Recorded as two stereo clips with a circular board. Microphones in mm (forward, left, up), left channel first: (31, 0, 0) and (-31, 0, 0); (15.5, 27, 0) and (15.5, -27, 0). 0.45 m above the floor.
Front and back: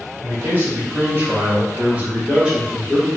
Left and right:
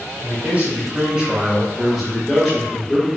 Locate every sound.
0.2 s a man speaking: 140° right, 1.6 m; by 3.2 s 105° left, 1.1 m